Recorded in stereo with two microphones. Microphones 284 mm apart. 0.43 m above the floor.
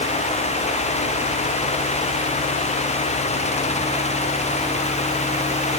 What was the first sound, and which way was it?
Only background noise.